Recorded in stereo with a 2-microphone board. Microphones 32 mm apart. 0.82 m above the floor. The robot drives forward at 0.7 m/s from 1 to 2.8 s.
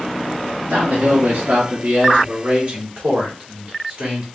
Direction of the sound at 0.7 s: 55° right (ahead or behind).